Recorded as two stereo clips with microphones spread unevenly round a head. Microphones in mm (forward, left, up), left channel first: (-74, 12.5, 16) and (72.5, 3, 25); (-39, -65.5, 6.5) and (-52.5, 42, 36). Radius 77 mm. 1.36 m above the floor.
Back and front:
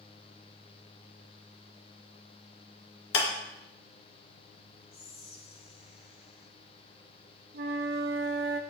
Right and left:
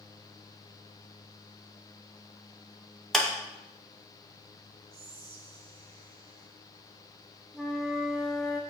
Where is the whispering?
125° left, 1.9 m.